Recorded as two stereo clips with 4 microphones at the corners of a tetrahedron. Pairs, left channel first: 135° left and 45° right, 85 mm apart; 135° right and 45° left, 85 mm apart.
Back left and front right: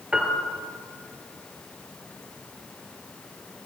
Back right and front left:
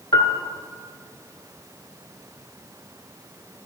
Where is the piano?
125° right, 1.7 m.